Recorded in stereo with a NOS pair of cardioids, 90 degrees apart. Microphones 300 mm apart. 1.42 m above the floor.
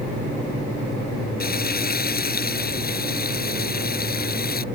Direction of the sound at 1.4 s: 30° left.